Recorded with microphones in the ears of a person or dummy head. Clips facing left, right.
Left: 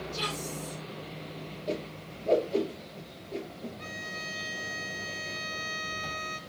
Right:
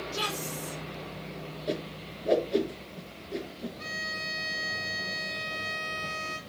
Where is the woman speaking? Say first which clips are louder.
Right 1 dB; 80° right, 5.5 m.